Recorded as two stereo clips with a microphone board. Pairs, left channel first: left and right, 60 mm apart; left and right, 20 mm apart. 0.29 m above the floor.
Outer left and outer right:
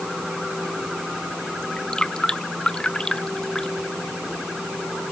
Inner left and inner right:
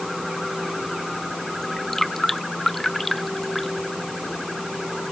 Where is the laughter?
I don't hear laughter.